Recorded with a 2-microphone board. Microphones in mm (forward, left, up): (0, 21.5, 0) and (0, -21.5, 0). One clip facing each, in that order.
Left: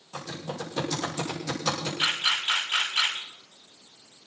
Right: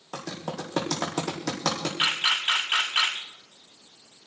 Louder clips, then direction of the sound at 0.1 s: Right 1 dB; 70° right (ahead or behind).